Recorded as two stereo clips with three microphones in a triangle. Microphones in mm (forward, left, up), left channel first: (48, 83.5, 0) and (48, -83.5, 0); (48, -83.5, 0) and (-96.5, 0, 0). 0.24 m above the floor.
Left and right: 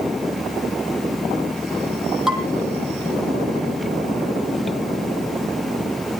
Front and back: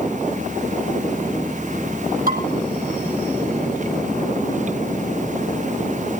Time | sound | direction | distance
2.3 | dishes clattering | straight behind | 5.5 m